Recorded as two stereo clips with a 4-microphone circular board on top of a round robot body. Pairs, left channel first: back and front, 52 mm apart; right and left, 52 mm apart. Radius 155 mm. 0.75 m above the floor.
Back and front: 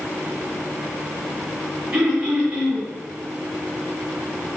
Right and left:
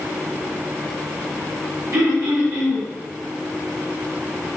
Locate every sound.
1.9 s throat clearing: 65° left, 2.5 m